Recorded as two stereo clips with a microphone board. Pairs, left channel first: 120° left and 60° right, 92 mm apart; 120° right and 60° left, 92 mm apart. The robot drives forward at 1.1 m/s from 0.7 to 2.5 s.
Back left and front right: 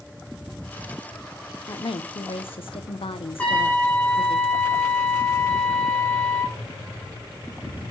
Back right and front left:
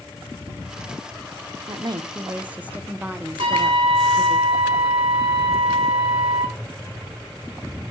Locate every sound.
1.7 s a woman speaking: 80° left, 0.9 m; by 4.4 s 135° left, 1.2 m
3.4 s a trumpet: 45° left, 5 m